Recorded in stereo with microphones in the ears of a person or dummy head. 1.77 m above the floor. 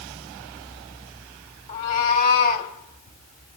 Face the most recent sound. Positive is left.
turn(degrees=55)  # may be behind; listen again after turning